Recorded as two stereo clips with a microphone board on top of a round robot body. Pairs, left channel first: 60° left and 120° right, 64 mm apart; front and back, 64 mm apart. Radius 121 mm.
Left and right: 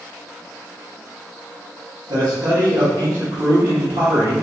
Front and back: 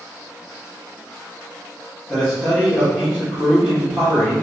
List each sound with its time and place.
2.1 s a man speaking: 80° right, 2.5 m